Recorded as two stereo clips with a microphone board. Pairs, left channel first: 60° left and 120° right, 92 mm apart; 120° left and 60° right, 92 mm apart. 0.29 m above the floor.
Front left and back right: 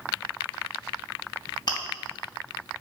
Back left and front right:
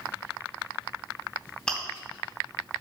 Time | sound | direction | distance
1.7 | chewing | 45° left | 2.5 m